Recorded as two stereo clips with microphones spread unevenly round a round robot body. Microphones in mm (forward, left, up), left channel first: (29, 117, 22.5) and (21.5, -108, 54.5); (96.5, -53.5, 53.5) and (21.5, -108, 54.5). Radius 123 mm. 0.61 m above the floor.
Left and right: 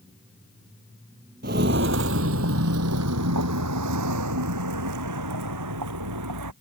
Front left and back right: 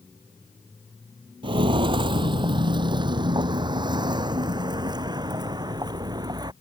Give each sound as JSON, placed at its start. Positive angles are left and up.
{"t": 1.4, "sound": "footsteps", "azimuth_deg": -135}